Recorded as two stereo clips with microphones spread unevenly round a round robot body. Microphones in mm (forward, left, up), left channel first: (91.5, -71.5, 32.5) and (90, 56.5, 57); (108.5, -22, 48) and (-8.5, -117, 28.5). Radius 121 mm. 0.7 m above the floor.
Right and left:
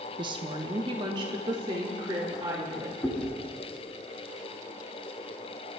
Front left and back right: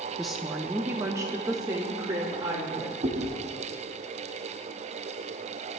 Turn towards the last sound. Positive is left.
turn(degrees=-160)